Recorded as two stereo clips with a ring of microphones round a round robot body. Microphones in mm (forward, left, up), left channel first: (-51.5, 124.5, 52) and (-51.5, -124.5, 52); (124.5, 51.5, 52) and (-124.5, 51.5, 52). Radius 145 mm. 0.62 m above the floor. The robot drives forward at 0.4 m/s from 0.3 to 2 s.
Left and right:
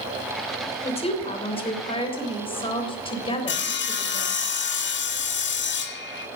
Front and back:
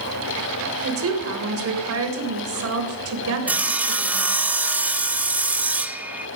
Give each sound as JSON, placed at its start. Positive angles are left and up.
{"t": 0.8, "sound": "a woman speaking", "azimuth_deg": 155, "distance_m": 3.5}
{"t": 3.5, "sound": "sawing", "azimuth_deg": 100, "distance_m": 1.5}